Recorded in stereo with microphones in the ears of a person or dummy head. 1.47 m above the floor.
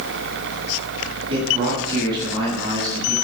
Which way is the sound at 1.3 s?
25° right (ahead or behind).